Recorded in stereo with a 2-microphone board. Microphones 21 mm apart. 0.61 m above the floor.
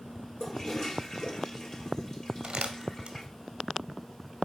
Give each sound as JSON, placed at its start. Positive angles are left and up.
{"t": 0.4, "sound": "a toilet flushing", "side_deg": 30, "distance_m": 3.0}
{"t": 2.4, "sound": "crumpling", "side_deg": -65, "distance_m": 0.8}